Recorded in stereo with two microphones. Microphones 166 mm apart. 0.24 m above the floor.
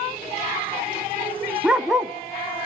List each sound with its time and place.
1.6 s a dog barking: 5° right (ahead or behind), 0.9 m